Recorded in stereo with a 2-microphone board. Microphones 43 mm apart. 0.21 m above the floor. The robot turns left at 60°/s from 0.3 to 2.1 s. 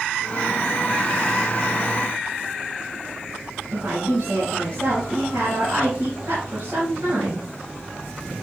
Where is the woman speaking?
70° right (ahead or behind), 4 m.